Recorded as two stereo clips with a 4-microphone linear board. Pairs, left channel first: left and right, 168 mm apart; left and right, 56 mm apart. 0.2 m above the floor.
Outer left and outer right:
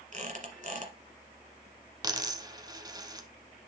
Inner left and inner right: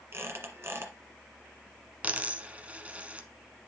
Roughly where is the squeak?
Right.